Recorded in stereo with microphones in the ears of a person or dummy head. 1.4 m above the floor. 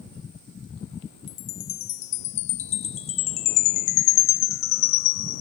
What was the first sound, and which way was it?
A chime, 50° left (ahead or behind).